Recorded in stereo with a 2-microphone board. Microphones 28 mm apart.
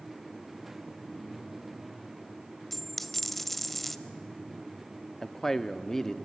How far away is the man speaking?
About 0.8 m.